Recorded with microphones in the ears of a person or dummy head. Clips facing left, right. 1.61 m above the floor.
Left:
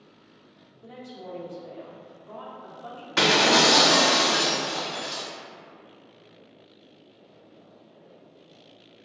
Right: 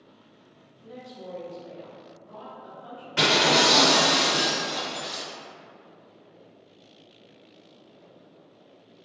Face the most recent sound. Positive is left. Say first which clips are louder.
# left 1 dB
turn(degrees=60)  # may be behind; listen again after turning